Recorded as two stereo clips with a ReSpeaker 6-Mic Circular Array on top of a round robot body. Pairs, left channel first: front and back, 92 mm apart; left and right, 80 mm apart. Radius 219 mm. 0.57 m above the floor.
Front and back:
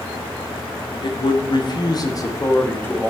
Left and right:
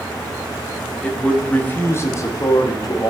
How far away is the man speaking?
About 1.6 m.